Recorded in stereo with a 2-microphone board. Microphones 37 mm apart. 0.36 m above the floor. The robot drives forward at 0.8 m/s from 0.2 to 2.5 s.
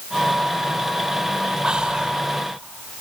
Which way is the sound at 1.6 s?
25° right (ahead or behind).